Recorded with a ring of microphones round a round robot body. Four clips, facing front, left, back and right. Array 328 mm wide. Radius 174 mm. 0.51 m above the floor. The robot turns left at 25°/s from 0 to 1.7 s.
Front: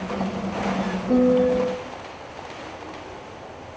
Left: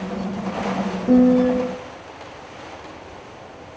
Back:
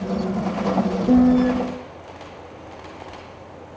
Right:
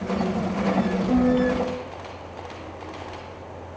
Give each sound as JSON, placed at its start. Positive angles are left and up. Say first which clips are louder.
{"t": 1.1, "sound": "a piano", "louder": "left 8 dB, back 2 dB", "azimuth_deg": 140, "distance_m": 2.5}